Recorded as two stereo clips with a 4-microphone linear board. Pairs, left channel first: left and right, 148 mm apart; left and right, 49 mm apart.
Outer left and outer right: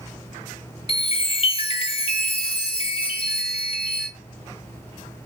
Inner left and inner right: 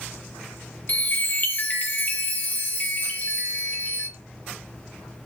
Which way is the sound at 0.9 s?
40° left (ahead or behind).